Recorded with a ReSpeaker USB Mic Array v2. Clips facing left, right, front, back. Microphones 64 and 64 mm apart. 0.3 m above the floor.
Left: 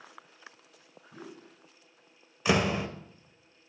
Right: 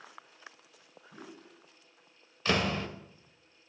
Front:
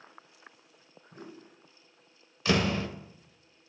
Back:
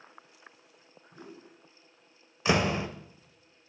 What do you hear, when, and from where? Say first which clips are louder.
1.1 s a whoosh: left 3 dB, front 1 dB; 10° right, 2 m
2.5 s a door slam: left 3 dB, back 1 dB; 150° left, 0.5 m